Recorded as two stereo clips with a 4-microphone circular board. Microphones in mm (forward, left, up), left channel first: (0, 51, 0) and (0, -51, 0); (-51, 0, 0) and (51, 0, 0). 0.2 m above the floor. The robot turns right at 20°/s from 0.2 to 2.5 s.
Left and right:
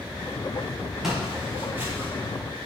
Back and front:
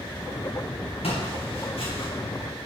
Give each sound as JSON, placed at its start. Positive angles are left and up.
{"t": 1.0, "sound": "footsteps", "azimuth_deg": -175, "distance_m": 4.0}